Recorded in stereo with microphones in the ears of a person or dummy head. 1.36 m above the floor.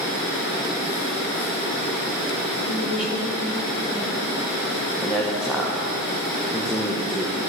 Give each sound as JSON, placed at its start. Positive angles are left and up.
{"t": 2.6, "sound": "a woman speaking", "side_deg": -10, "distance_m": 4.0}
{"t": 5.0, "sound": "a man speaking", "side_deg": -5, "distance_m": 1.1}